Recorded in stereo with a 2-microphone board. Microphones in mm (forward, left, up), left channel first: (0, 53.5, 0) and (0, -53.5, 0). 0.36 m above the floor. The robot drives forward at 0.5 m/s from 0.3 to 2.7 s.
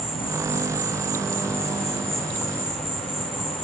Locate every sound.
0.0 s an insect: 40° left (ahead or behind), 1.3 m; by 3.6 s 75° left (ahead or behind), 0.9 m